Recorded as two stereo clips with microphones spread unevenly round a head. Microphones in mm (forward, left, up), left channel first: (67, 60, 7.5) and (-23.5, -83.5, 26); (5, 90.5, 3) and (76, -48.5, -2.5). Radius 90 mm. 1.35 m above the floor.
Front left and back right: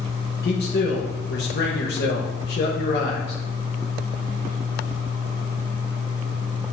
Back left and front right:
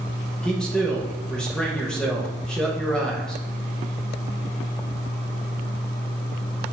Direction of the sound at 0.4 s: 30° left.